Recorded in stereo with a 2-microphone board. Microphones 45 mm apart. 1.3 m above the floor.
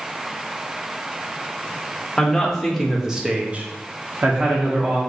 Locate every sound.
2.2 s a man speaking: 10° left (ahead or behind), 1.3 m; by 5.0 s 40° right (ahead or behind), 1.3 m